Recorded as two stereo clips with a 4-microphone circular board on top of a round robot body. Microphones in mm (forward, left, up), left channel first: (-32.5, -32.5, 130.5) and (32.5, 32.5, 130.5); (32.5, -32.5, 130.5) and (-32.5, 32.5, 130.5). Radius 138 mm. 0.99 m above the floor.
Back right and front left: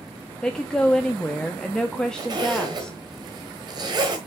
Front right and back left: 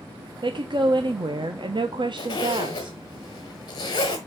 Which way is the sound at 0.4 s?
145° left.